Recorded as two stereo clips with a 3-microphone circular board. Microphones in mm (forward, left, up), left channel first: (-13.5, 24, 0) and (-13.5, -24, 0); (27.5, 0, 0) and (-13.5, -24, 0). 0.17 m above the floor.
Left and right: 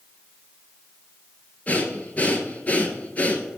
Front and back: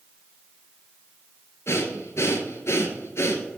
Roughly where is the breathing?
Ahead left.